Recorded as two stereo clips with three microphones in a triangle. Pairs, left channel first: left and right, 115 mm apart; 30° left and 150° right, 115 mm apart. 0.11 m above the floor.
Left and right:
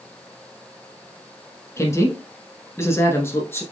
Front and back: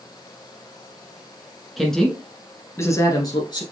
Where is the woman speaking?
120° left, 1.3 m; by 3.6 s 30° left, 1.5 m.